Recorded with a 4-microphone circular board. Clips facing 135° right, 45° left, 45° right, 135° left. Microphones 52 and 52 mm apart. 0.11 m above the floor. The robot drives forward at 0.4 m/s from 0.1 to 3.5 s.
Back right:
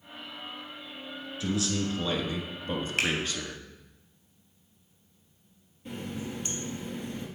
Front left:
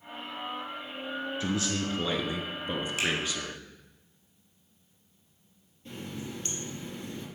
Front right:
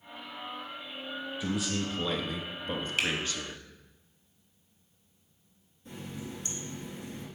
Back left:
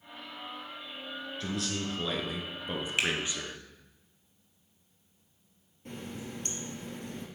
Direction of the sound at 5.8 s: 150° left.